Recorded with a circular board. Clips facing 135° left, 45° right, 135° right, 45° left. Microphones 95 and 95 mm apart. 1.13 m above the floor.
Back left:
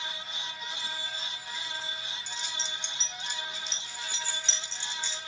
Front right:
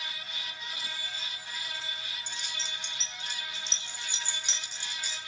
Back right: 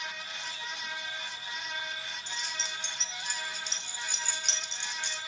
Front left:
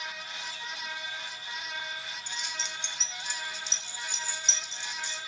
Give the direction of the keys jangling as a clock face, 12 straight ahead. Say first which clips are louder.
Back left 3 dB, even; 3 o'clock.